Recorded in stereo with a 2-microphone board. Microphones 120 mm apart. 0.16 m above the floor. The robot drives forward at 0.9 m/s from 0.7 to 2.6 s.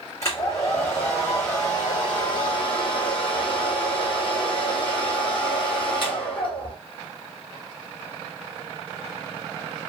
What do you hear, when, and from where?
0.2 s a hair dryer: 25° left (ahead or behind), 4 m; by 6.8 s 45° left (ahead or behind), 2.5 m